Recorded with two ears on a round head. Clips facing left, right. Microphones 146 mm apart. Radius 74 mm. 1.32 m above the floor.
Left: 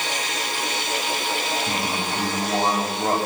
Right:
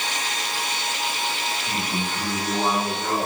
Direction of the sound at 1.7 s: 30° left (ahead or behind).